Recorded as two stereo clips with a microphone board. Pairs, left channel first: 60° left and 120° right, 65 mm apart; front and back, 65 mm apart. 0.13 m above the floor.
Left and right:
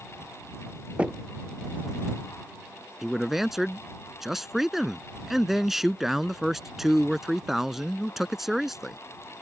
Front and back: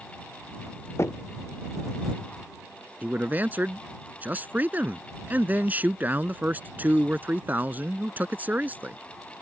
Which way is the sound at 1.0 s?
45° right.